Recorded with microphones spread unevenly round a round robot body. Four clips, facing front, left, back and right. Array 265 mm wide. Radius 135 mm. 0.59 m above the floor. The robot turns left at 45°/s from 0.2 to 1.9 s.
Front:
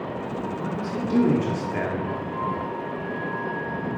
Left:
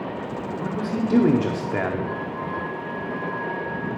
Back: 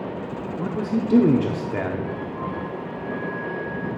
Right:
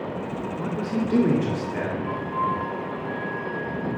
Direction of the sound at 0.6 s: 175° right.